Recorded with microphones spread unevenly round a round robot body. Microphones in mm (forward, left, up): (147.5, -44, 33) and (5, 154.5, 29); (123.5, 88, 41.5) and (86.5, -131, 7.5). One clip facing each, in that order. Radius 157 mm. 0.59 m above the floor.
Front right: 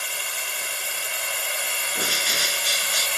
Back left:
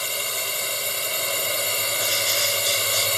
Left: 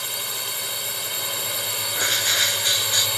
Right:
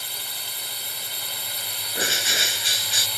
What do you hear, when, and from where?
0.0 s a drone: 85° left
1.9 s a bird: 35° right